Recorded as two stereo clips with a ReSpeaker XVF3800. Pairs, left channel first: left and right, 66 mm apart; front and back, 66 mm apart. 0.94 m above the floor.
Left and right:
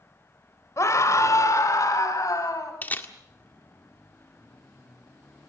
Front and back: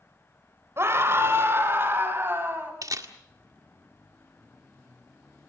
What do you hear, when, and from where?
0.8 s a scream: 130° left, 4 m; by 2.7 s 125° left, 7 m
2.8 s a camera shutter: 150° left, 1.8 m